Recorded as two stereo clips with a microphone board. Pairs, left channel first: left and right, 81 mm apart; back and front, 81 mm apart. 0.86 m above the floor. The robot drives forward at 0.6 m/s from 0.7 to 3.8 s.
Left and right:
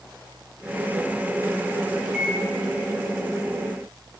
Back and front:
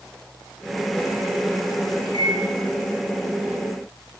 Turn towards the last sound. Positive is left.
turn(degrees=-150)